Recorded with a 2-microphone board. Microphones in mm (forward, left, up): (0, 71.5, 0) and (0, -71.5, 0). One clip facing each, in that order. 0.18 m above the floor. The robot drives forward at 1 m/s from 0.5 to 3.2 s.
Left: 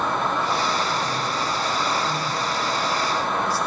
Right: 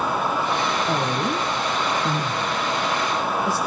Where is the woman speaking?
65° right (ahead or behind), 3 m; by 3.6 s 50° right (ahead or behind), 3.5 m.